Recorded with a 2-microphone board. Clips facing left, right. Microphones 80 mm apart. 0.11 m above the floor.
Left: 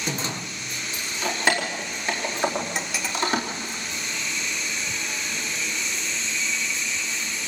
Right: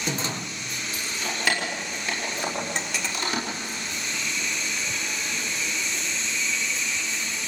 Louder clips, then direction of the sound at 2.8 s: Left 1 dB; 5° left (ahead or behind).